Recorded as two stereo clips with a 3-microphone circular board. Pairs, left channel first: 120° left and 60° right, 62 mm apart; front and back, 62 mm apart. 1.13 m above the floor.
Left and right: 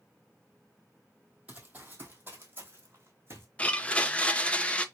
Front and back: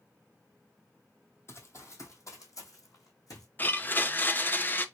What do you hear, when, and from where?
1.5 s running footsteps: 10° right, 1.5 m
3.6 s a blender: 55° left, 0.5 m